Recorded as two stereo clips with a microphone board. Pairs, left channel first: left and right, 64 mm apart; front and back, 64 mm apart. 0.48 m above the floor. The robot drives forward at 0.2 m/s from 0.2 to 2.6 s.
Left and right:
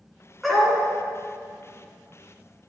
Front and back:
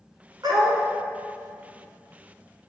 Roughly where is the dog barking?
Behind.